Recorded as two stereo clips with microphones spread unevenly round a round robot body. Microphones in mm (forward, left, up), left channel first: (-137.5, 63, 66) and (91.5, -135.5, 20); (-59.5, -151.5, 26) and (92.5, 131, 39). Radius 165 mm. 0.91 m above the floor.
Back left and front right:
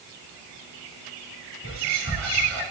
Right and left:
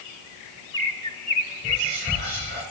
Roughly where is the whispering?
Ahead.